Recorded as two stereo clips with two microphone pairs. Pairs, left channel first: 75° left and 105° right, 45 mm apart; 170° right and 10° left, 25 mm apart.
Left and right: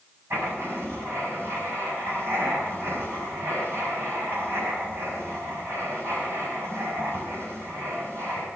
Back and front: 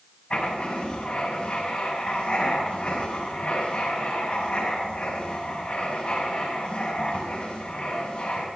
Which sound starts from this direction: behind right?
Writing, at 0.3 s.